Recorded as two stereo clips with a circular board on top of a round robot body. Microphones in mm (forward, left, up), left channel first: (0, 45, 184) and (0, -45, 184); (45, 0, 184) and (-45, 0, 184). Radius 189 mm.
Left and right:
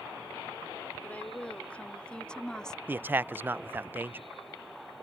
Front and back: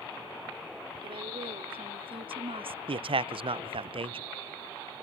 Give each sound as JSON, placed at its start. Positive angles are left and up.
{"t": 1.0, "sound": "a woman speaking", "azimuth_deg": 165}
{"t": 2.9, "sound": "a man speaking", "azimuth_deg": -160}